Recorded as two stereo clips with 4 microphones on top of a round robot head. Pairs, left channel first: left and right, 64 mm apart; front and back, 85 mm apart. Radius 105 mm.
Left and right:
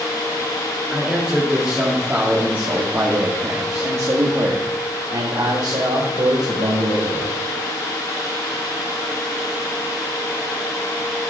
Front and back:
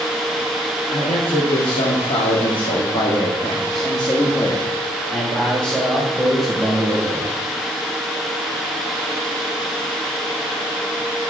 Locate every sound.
0.9 s a man speaking: 15° right, 2.5 m; by 7.3 s 100° right, 2 m